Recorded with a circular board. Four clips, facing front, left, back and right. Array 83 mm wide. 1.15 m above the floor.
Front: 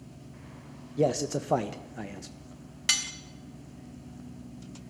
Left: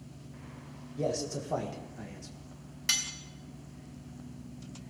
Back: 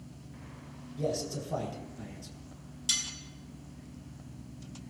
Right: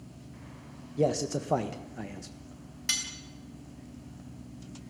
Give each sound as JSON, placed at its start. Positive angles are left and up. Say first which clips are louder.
{"t": 1.0, "sound": "a man speaking", "louder": "right 5 dB, front 7 dB", "azimuth_deg": -30, "distance_m": 1.3}
{"t": 2.9, "sound": "cutlery clinking", "louder": "left 1 dB, front 7 dB", "azimuth_deg": 10, "distance_m": 1.1}